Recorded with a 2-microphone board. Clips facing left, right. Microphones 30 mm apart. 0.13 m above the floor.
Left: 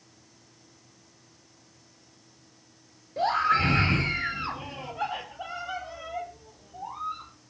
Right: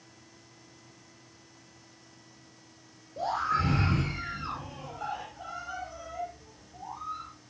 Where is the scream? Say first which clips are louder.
Left 5 dB; 55° left (ahead or behind), 3 m; by 7.3 s 40° left (ahead or behind), 4.5 m.